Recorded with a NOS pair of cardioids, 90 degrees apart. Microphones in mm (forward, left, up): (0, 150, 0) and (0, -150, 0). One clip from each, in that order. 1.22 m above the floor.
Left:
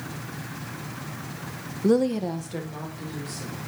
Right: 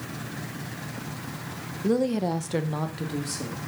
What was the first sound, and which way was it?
A woman speaking, 25° left.